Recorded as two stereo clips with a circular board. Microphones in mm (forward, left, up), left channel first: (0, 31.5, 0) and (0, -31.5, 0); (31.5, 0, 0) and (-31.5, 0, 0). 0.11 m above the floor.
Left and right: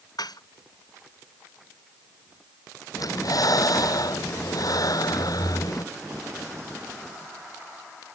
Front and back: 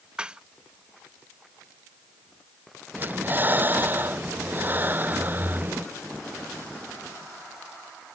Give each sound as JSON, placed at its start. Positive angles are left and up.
{"t": 0.2, "sound": "dishes clattering", "azimuth_deg": 100}
{"t": 3.0, "sound": "breathing", "azimuth_deg": 120}